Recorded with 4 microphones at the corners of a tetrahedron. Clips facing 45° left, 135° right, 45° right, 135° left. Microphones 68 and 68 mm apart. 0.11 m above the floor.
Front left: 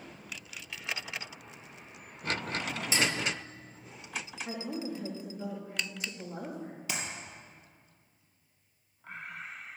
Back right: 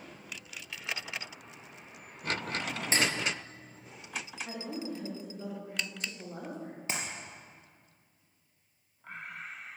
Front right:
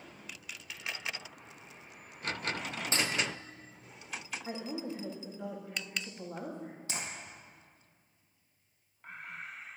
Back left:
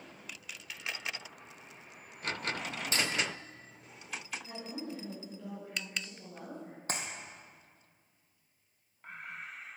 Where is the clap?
170° left, 2.5 m.